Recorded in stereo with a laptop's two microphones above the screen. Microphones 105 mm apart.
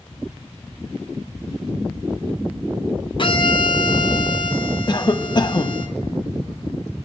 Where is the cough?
40° left (ahead or behind), 1.2 m.